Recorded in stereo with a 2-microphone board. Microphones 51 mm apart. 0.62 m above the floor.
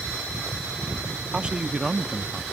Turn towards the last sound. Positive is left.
turn(degrees=15)  # may be behind; listen again after turning